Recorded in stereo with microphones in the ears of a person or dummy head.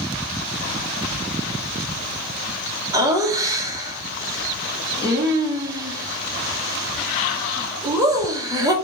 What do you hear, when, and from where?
2.9 s laughter: 20° right (ahead or behind), 0.9 m